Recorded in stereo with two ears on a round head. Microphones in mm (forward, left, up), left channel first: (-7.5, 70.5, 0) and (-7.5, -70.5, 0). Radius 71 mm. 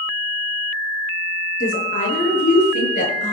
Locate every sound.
1.6 s a woman speaking: 55° left (ahead or behind), 9.5 m